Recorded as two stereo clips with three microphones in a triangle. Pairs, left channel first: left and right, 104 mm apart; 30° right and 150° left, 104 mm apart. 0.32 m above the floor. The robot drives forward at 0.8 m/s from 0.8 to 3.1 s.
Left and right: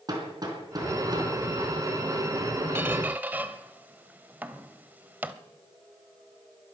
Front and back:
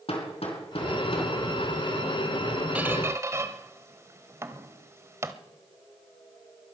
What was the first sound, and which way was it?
Hammering, 40° right.